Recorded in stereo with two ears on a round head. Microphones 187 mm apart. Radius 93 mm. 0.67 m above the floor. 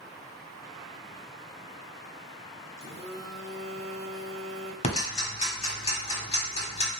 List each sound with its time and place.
2.8 s a phone buzzing: 15° right (ahead or behind), 1.2 m
4.8 s ticking: 30° left (ahead or behind), 1.1 m